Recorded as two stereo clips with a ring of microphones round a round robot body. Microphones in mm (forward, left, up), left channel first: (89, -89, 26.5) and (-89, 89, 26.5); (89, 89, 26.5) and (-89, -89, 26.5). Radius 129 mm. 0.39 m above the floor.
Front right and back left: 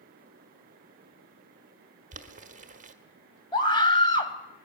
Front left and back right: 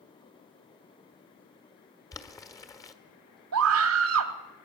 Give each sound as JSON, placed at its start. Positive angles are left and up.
{"t": 2.1, "sound": "boiling", "azimuth_deg": 110, "distance_m": 1.6}
{"t": 3.5, "sound": "a scream", "azimuth_deg": -115, "distance_m": 2.5}